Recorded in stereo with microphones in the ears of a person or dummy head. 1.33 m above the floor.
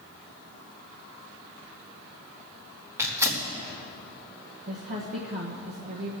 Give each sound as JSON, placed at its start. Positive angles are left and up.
{"t": 3.0, "sound": "tearing paper", "side_deg": -15, "distance_m": 2.0}
{"t": 4.7, "sound": "a woman speaking", "side_deg": -45, "distance_m": 1.1}